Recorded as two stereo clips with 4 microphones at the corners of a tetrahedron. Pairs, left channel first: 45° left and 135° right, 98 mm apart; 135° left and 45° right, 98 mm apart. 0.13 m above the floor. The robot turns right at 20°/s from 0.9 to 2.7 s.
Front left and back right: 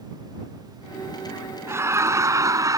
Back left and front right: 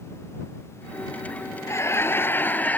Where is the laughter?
Straight behind; by 2.8 s 160° right.